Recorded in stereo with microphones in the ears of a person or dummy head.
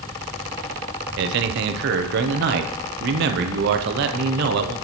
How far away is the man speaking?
About 0.7 m.